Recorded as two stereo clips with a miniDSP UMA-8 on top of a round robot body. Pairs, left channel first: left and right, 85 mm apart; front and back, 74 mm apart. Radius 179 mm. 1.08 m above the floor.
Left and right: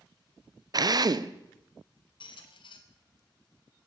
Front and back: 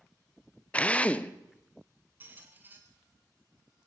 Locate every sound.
0.7 s a drill: 70° right, 0.8 m
2.2 s a squeak: 115° left, 1.0 m